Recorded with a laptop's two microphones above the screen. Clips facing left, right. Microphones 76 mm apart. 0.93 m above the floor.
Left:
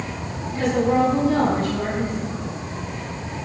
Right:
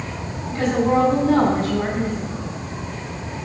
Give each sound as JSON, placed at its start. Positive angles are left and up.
{"t": 0.5, "sound": "a woman speaking", "side_deg": -35, "distance_m": 7.0}